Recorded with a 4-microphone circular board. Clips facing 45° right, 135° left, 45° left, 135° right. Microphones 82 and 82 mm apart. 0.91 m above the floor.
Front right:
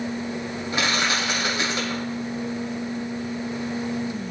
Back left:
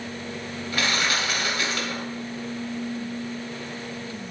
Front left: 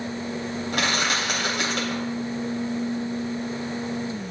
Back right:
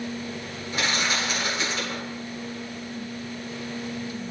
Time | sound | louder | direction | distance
0.7 | crushing | front right 1 dB, front left 1 dB | 25° left | 3 m